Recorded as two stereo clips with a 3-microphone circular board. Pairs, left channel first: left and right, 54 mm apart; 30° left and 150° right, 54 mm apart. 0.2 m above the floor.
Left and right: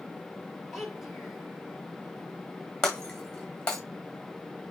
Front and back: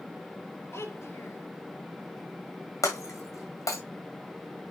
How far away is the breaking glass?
About 1.9 m.